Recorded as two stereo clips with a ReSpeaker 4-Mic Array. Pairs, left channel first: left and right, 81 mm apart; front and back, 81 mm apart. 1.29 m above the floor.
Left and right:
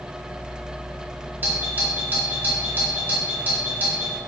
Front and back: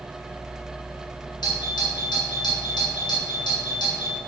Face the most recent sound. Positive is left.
turn(degrees=-25)